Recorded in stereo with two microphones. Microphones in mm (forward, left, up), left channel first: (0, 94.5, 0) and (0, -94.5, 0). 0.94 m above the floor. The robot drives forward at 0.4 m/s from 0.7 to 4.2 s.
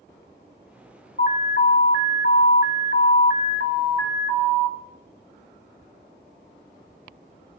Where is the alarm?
55° left (ahead or behind), 1.0 m; by 4.8 s 45° left (ahead or behind), 1.2 m.